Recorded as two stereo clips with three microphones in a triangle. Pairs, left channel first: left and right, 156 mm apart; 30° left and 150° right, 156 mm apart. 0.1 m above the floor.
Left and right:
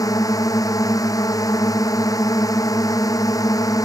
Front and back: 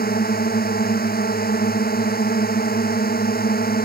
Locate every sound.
0.0 s a drone: 25° left